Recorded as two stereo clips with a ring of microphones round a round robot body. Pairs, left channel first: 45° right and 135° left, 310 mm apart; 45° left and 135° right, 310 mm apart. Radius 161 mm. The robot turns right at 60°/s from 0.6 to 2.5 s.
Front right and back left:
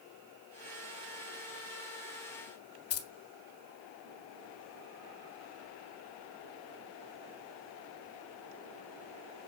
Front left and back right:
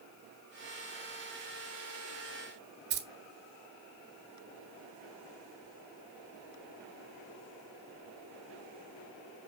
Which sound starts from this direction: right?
Keys jangling, at 2.9 s.